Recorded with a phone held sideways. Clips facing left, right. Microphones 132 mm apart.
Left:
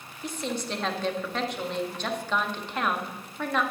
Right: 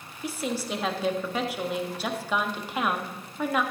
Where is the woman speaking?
10° right (ahead or behind), 1.5 m.